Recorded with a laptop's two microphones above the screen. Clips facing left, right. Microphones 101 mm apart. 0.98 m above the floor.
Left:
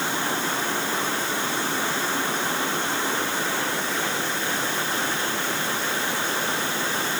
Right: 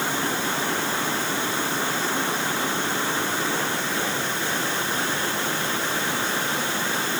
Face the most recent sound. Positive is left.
No sound to turn to.